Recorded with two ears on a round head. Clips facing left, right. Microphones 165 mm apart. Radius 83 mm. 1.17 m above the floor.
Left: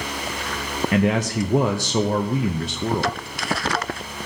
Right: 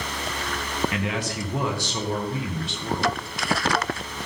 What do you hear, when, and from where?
0.9 s a man speaking: 40° left (ahead or behind), 0.8 m